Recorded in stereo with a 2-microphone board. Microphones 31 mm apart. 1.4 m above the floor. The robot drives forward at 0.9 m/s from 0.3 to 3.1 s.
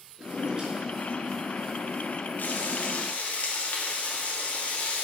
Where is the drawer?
25° right (ahead or behind), 4.5 m; by 1.8 s 30° right (ahead or behind), 3.5 m.